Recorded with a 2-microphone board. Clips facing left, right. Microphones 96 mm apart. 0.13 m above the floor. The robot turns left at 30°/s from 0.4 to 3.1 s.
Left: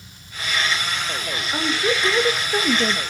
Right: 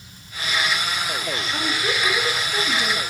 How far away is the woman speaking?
About 2.5 m.